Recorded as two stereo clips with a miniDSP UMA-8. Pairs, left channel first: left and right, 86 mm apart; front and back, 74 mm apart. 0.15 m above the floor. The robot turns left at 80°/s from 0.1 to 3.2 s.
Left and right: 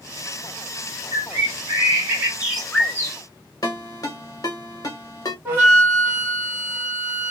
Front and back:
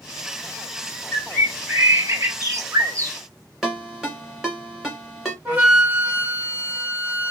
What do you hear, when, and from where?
1.1 s a bird: 60° right, 1.1 m; by 3.2 s 135° left, 1.1 m
3.6 s a ringtone: 95° left, 1.3 m
5.5 s a flute: 135° right, 1.5 m